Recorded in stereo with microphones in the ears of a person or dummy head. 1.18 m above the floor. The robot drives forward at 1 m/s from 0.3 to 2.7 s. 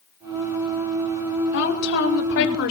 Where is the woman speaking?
55° left (ahead or behind), 6.5 m; by 2.7 s 65° left (ahead or behind), 6 m.